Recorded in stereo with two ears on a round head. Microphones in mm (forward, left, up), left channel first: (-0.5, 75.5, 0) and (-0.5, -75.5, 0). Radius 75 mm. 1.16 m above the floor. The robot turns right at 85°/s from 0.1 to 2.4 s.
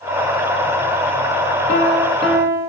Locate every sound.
1.7 s a piano: 130° left, 1.1 m; by 2.7 s 165° right, 1.1 m